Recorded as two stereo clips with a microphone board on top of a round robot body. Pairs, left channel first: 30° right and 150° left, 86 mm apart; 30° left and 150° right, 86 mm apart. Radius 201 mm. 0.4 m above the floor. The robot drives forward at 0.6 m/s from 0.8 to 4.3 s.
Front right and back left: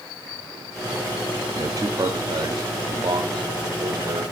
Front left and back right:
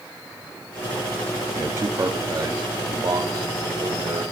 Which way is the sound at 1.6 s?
170° left.